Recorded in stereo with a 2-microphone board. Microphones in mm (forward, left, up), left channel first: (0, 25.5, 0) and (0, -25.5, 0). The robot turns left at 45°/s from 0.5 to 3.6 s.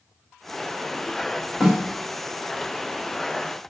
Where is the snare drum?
Centre (ahead or behind), 1.5 m; by 1.9 s 15° right (ahead or behind), 1.5 m.